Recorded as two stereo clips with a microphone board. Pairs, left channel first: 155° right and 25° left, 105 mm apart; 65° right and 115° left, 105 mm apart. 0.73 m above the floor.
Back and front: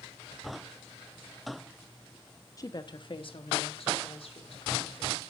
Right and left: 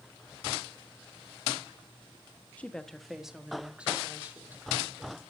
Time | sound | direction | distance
2.6 | a woman speaking | 135° right | 0.8 m